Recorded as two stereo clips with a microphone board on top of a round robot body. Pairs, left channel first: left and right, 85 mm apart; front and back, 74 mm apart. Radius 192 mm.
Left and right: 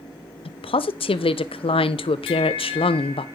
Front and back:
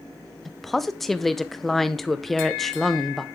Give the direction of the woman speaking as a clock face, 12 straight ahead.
9 o'clock.